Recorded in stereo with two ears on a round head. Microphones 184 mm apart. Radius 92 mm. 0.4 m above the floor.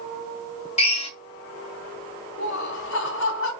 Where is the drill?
30° left (ahead or behind), 1.9 m.